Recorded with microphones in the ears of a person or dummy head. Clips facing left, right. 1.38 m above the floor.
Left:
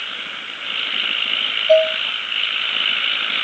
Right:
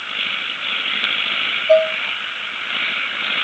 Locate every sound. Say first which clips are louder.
1.7 s dishes clattering: even; 5° left (ahead or behind), 1.4 m